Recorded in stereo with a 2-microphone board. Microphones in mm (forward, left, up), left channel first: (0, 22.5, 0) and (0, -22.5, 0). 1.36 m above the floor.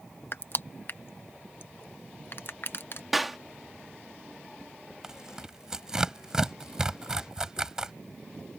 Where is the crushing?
55° left (ahead or behind).